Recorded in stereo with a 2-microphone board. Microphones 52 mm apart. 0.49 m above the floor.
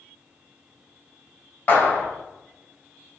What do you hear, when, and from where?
1.7 s a clap: 40° left (ahead or behind), 1.9 m